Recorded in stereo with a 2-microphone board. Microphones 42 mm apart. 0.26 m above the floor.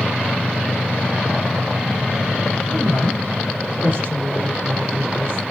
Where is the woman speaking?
65° left (ahead or behind), 3.5 m; by 5.4 s 55° left (ahead or behind), 3 m.